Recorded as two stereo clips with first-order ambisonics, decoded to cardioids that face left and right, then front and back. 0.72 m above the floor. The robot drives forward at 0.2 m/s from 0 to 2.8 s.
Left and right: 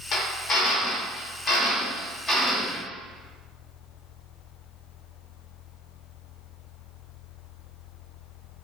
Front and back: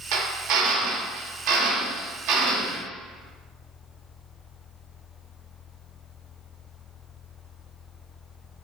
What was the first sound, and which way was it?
A drill, 150° left.